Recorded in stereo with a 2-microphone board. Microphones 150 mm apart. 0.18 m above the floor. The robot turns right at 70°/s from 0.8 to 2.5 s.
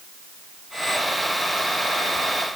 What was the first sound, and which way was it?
Only background noise.